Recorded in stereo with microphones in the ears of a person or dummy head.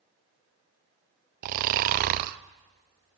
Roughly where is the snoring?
Right.